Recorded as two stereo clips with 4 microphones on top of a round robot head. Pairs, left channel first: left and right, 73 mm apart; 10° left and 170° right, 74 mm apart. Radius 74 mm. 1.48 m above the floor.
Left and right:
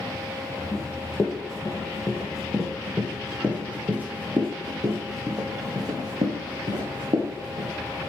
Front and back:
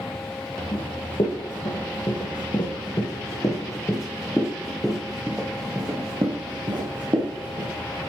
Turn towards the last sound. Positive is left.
turn(degrees=-135)